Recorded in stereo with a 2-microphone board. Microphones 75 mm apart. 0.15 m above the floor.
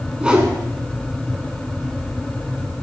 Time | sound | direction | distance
0.2 | a whoosh | 15° right (ahead or behind) | 0.9 m